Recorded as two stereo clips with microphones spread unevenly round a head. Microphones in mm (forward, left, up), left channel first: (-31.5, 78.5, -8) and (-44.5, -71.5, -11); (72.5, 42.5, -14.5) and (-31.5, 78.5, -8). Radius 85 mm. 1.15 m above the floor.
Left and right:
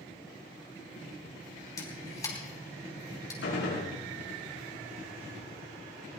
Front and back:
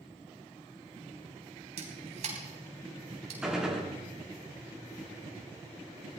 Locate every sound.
1.8 s a camera shutter: 155° left, 4 m
3.4 s a gunshot: 75° left, 7.5 m